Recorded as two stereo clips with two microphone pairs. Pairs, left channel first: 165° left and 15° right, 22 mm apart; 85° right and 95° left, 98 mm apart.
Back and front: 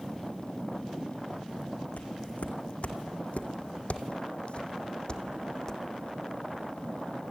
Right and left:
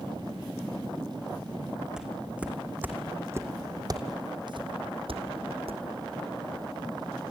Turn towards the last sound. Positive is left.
turn(degrees=95)